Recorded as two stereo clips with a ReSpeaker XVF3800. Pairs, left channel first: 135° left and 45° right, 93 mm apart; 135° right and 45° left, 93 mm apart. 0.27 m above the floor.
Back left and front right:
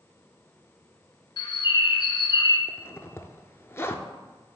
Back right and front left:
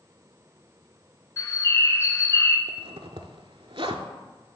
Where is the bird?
165° left, 0.7 m.